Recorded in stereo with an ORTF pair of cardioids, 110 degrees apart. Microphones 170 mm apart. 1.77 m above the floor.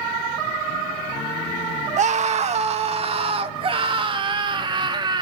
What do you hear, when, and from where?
2.0 s a scream: 50° right, 2.0 m; by 5.2 s 30° right, 3.5 m